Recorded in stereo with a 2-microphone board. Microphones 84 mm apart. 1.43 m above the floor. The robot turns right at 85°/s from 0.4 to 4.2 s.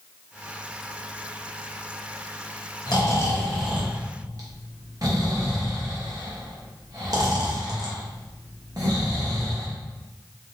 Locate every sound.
2.9 s snoring: 55° left (ahead or behind), 1.1 m; by 9.7 s 45° right (ahead or behind), 1.1 m